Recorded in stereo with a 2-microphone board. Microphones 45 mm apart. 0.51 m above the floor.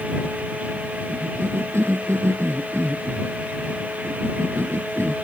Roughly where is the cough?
Right.